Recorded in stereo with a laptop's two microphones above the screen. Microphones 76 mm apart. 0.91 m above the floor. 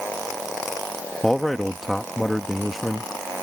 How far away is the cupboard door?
No cupboard door in this recording.